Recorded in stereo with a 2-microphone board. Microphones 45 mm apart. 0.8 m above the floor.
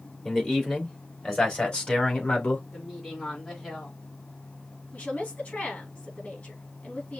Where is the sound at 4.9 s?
20° left (ahead or behind), 3 m.